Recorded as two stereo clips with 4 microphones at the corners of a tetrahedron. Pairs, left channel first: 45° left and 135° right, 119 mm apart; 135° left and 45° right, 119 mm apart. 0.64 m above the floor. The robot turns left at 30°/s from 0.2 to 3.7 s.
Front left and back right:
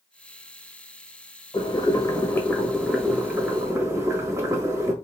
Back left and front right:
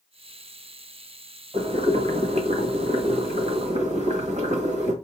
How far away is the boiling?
About 1.3 m.